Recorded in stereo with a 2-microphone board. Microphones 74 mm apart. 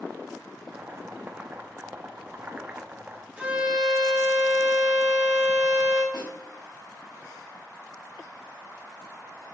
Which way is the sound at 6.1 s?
85° left.